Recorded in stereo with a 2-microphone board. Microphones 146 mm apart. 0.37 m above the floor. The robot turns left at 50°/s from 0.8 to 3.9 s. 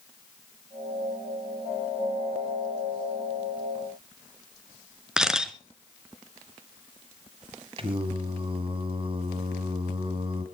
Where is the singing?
40° right (ahead or behind), 1.8 m.